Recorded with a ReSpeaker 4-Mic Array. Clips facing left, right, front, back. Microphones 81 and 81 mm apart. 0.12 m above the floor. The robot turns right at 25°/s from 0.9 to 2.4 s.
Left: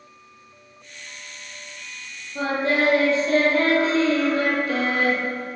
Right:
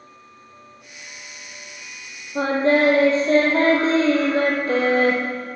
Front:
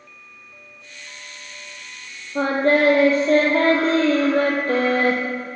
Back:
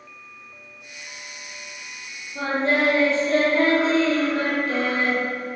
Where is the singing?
40° right, 2.5 m.